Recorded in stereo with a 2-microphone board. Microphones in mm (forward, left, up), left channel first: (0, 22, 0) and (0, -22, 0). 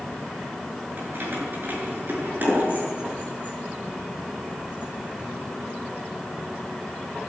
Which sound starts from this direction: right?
Keys jangling, at 1.0 s.